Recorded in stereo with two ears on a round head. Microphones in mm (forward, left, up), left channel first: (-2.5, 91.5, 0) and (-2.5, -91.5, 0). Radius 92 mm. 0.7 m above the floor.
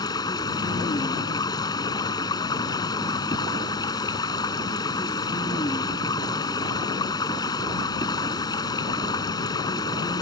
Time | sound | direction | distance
0.0 | running water | 20° left (ahead or behind) | ?